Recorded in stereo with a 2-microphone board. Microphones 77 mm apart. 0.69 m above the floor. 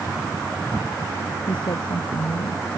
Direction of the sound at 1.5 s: 75° left (ahead or behind).